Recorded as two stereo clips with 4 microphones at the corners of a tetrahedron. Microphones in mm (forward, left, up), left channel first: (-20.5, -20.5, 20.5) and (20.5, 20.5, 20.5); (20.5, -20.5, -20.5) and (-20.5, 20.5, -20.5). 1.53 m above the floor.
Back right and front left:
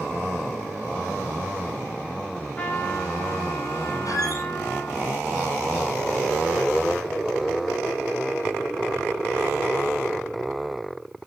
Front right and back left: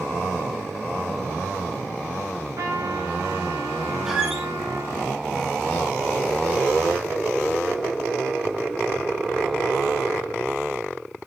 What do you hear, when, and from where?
2.3 s a trumpet: 155° left, 8 m
4.0 s a squeak: 145° right, 7 m